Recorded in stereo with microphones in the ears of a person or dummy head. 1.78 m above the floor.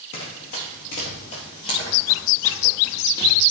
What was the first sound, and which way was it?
Running footsteps, 45° left (ahead or behind).